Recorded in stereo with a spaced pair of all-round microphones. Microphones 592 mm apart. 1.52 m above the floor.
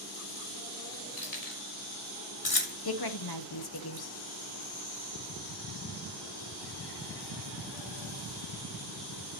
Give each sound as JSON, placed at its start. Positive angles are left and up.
{"t": 1.2, "sound": "keys jangling", "side_deg": 80, "distance_m": 3.5}
{"t": 2.9, "sound": "a woman speaking", "side_deg": 40, "distance_m": 0.9}